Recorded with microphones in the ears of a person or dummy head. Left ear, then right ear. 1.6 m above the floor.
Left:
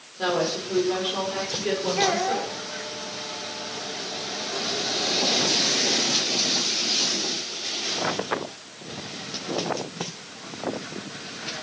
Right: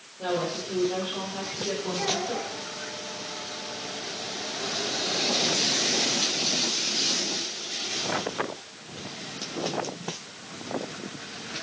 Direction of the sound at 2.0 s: 40° left (ahead or behind).